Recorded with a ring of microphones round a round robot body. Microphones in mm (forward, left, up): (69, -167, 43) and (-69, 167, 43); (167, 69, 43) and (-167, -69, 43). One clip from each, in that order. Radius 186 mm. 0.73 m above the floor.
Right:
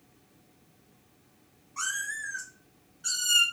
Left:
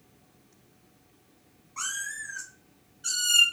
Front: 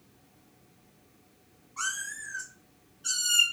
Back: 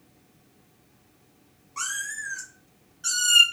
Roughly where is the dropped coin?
No dropped coin in this recording.